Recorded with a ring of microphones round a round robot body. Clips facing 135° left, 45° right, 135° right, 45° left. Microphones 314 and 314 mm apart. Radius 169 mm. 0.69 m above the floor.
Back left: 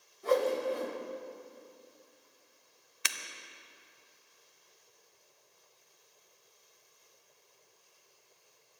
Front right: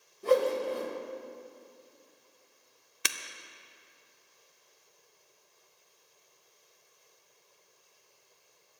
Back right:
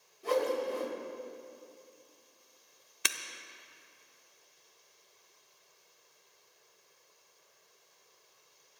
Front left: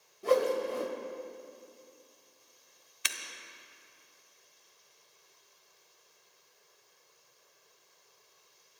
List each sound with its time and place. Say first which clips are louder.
0.2 s a whoosh: front right 3 dB, front left 3 dB; 10° left, 2.5 m
3.0 s breaking glass: front right 5 dB, back right 6 dB; 95° right, 0.6 m